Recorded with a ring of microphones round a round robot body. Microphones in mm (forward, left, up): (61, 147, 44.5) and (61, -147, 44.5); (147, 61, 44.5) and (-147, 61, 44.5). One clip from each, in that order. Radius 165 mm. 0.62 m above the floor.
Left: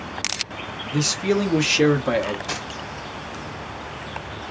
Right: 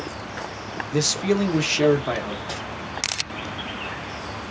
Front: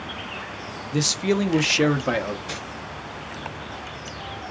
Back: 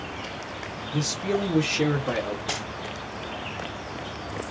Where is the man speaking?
15° right, 0.7 m; by 2.4 s 30° left, 1.1 m.